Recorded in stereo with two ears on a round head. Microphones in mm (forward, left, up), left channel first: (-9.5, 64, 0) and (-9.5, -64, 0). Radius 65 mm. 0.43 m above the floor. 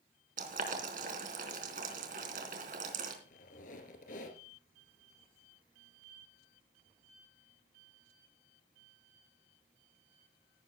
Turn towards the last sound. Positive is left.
turn(degrees=65)  # may be behind; listen again after turning